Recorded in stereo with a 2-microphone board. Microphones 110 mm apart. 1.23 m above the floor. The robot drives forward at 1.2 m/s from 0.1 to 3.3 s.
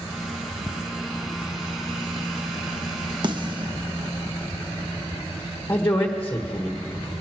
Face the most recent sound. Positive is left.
turn(degrees=25)  # may be behind; listen again after turning